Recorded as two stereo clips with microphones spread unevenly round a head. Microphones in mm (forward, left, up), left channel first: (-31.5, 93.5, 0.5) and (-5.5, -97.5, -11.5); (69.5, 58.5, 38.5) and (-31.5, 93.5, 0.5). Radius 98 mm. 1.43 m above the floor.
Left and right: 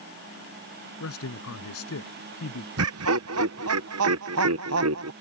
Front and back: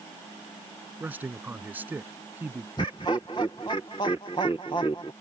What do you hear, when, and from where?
1.0 s a man speaking: 85° left
2.8 s laughter: 85° right